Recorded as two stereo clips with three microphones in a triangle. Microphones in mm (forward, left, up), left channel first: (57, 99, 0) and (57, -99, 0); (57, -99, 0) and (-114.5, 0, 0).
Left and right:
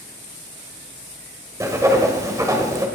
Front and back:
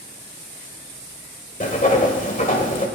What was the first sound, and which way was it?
Writing, 25° right.